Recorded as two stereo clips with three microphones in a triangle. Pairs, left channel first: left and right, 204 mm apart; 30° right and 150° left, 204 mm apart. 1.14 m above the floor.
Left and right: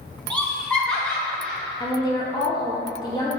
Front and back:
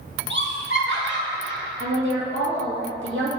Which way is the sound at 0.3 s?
175° left.